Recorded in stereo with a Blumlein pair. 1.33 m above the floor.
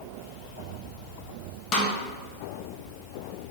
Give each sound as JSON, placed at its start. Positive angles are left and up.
{"t": 1.7, "sound": "a snare drum", "azimuth_deg": 35, "distance_m": 0.7}